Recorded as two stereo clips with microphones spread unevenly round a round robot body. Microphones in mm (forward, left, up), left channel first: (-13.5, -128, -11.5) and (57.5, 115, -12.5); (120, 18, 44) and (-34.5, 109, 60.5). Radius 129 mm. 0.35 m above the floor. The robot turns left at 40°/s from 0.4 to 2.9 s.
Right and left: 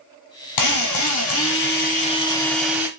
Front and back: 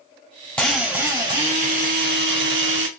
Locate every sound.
0.6 s a drill: 110° right, 0.7 m; by 2.9 s 155° left, 0.7 m